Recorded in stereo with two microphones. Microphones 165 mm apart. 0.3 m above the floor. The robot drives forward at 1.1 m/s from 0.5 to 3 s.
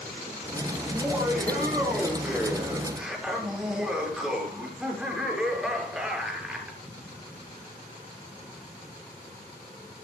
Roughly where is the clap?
I don't hear a clap.